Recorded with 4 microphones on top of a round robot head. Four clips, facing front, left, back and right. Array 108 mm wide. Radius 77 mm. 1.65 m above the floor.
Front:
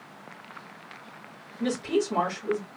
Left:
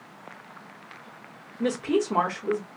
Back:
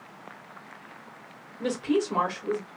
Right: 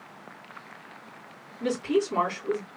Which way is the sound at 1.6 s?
115° left.